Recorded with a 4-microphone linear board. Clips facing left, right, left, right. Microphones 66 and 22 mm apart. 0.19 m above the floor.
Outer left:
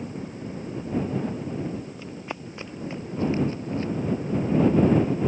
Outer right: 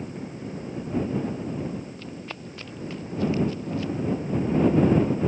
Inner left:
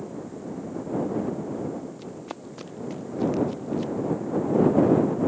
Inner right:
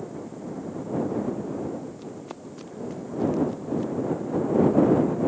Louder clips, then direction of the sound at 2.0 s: Outer left 2 dB, inner left 1 dB; 15° left (ahead or behind).